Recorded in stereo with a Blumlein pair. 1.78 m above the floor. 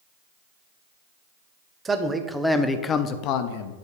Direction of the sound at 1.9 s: 15° right.